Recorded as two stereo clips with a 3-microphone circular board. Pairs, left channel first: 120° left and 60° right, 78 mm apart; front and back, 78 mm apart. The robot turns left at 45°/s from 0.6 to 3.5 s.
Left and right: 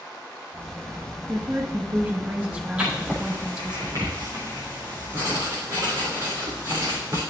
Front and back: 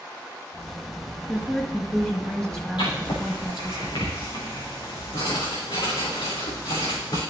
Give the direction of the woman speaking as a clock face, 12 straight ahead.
1 o'clock.